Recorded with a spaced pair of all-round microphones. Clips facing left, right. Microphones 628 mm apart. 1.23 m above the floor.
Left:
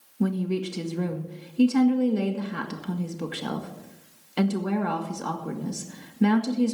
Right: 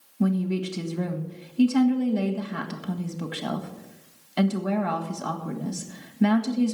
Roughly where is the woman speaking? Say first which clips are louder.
Right 1 dB; centre.